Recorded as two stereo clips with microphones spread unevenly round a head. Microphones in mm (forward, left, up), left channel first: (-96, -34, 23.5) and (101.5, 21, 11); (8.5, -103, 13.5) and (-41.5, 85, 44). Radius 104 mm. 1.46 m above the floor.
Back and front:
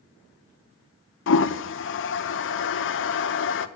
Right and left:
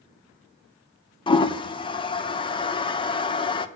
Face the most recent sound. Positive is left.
turn(degrees=-135)